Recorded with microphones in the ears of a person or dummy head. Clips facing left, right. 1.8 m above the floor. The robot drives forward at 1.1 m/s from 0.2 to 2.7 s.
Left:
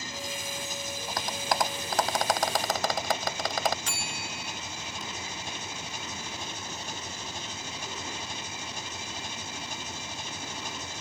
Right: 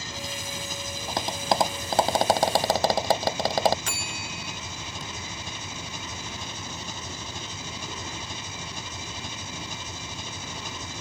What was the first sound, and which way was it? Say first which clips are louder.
An engine running: right 1 dB; 60° right (ahead or behind).